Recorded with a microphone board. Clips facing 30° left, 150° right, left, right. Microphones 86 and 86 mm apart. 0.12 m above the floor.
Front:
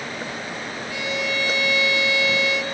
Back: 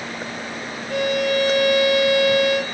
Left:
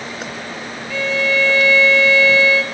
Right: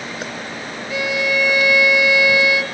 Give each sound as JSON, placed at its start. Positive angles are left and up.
{"t": 0.9, "sound": "a violin", "azimuth_deg": -165, "distance_m": 2.0}